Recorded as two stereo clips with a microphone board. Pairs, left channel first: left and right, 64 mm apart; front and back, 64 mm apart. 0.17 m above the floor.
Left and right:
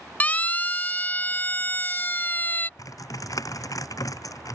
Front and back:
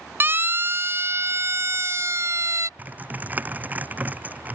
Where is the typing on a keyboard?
115° left.